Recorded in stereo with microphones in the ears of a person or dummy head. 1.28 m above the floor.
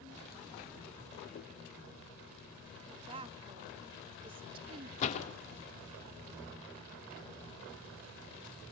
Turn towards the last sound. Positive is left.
turn(degrees=50)  # may be behind; listen again after turning